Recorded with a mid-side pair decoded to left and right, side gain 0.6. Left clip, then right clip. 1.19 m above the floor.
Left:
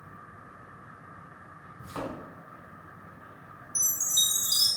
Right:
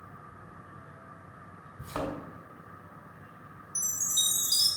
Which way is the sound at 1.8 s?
40° right.